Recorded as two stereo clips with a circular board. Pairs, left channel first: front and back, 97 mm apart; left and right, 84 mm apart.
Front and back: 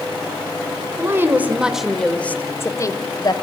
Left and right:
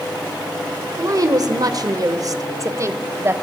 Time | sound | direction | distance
1.0 | a woman speaking | 125° right | 1.8 m